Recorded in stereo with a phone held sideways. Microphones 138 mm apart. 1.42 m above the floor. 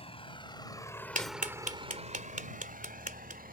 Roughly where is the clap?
Right.